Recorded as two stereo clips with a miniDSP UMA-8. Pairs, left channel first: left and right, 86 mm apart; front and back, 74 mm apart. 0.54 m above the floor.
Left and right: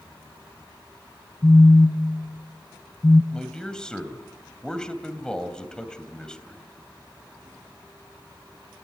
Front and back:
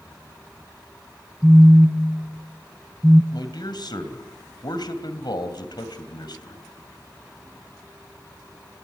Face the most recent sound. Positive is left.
turn(degrees=10)